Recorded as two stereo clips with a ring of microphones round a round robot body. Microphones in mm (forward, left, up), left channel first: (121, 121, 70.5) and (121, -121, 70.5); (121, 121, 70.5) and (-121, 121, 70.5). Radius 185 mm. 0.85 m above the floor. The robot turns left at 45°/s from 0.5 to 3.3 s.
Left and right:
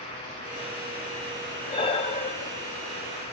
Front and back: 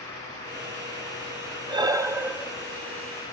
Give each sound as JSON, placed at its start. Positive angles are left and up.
{"t": 1.7, "sound": "breathing", "azimuth_deg": 130, "distance_m": 0.5}